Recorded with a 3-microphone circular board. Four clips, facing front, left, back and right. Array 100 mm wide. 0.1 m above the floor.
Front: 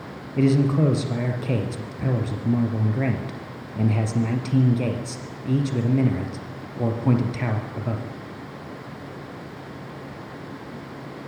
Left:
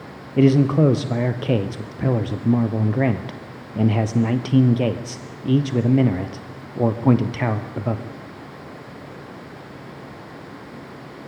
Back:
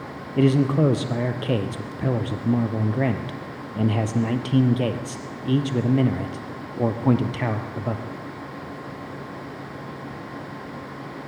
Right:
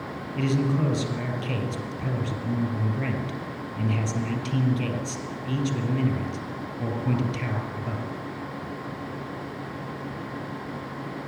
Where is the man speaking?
110° left, 2.5 m.